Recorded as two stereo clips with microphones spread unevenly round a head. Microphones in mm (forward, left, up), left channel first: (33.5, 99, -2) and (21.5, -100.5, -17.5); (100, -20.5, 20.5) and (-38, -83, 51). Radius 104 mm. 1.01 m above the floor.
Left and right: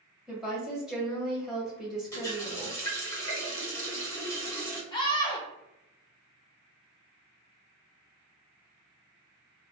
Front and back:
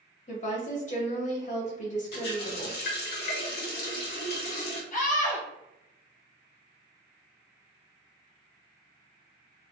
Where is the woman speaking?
5° right, 1.7 m.